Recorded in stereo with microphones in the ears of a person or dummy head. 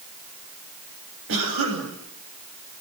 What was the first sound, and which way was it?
A cough, 75° right (ahead or behind).